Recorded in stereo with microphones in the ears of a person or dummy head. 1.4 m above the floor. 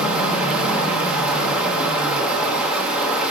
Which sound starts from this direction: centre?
Running water, at 0.0 s.